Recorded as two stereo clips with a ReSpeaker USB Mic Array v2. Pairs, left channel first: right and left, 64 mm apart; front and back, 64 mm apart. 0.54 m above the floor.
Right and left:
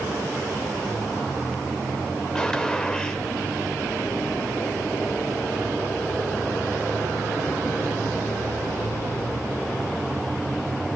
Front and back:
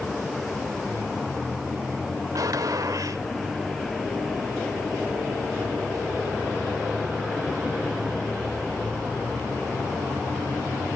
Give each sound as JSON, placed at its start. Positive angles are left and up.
{"t": 2.4, "sound": "a gunshot", "azimuth_deg": -170, "distance_m": 1.4}